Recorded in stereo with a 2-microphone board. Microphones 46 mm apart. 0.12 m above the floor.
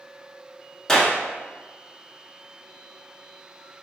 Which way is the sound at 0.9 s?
15° left (ahead or behind).